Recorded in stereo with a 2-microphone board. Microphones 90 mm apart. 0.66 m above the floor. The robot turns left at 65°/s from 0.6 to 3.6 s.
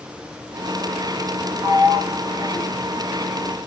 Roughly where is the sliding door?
Ahead.